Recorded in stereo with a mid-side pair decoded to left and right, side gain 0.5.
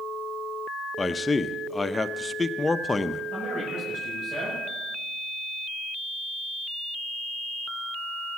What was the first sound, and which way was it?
A man speaking, 20° left.